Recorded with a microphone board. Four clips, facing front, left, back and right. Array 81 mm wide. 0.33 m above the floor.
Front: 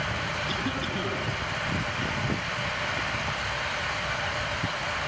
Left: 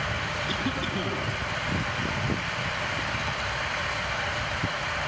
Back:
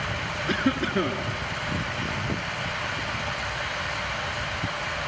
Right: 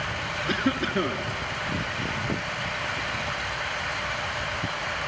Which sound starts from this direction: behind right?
A cough, at 0.5 s.